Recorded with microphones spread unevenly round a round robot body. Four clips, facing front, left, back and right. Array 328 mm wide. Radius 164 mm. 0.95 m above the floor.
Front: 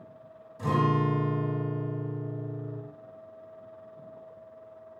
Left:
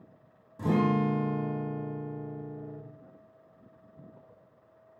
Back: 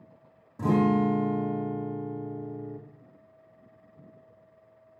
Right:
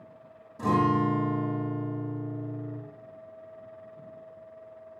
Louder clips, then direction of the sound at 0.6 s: Right 2 dB, back 3 dB; straight behind.